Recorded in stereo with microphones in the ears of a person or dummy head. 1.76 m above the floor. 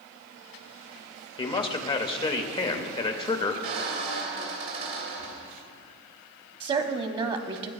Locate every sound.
1.4 s a man speaking: 25° left (ahead or behind), 0.7 m
3.6 s a squeak: 50° right (ahead or behind), 1.7 m
6.6 s a woman speaking: 30° right (ahead or behind), 0.6 m